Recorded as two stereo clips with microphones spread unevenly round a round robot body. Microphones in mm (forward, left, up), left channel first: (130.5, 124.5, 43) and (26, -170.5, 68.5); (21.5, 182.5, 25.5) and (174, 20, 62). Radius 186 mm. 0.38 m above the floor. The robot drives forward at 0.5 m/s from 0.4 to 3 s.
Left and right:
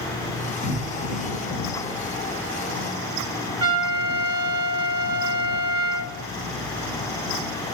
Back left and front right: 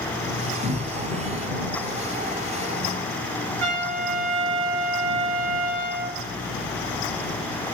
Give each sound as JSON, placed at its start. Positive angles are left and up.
{"t": 0.6, "sound": "a cupboard door", "azimuth_deg": 40, "distance_m": 1.5}
{"t": 3.6, "sound": "a trumpet", "azimuth_deg": -135, "distance_m": 1.7}